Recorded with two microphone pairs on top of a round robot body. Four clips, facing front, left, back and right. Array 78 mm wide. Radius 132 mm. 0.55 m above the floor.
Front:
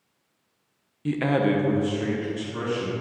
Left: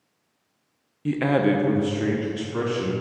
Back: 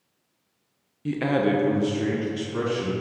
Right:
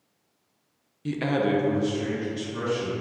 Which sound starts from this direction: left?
A man speaking, at 1.1 s.